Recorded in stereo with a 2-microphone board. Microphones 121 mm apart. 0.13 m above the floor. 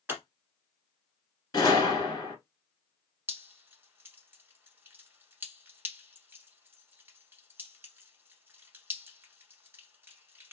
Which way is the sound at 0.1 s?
15° right (ahead or behind).